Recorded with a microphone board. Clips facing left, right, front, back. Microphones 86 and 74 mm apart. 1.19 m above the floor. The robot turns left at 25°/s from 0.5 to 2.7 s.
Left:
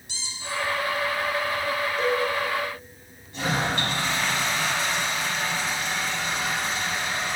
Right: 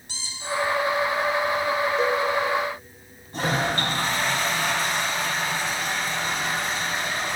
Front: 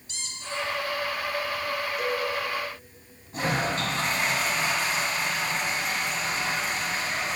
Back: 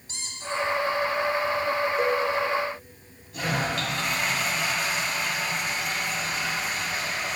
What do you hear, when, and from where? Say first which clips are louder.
0.1 s a squeak: right 3 dB, back 3 dB; 135° right, 1.5 m; by 0.7 s 140° right, 1.5 m
2.0 s a cowbell: left 1 dB, back 4 dB; 145° right, 0.9 m; by 2.2 s 150° right, 0.9 m
3.3 s a toilet flushing: right 2 dB, front 1 dB; 50° right, 1.8 m